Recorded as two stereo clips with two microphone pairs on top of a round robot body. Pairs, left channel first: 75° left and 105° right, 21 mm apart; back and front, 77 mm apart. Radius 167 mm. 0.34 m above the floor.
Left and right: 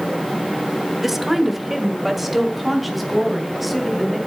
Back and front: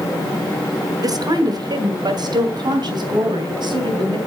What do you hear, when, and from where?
1.0 s a woman speaking: 20° right, 1.7 m; by 4.2 s 15° right, 4 m